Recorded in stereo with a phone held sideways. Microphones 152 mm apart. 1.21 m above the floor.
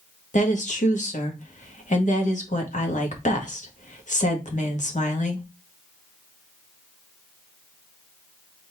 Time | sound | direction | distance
0.3 | a woman speaking | 55° left (ahead or behind) | 1.4 m